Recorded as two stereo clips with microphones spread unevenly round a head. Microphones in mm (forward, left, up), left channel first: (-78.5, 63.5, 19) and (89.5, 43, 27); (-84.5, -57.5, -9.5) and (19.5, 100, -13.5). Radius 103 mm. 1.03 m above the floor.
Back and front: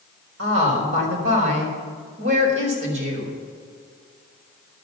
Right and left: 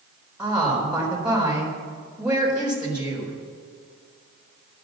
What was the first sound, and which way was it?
A woman speaking, 30° right.